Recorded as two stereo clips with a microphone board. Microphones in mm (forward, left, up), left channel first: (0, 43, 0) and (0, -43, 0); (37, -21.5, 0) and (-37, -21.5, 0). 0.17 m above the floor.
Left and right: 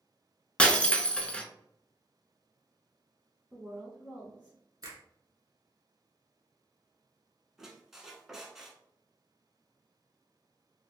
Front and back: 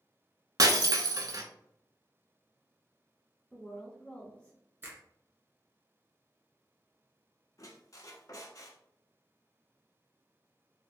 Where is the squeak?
5° right, 0.7 m.